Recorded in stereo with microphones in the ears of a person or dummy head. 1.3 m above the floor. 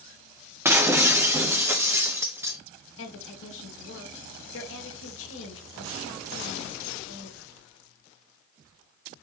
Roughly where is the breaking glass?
Centre.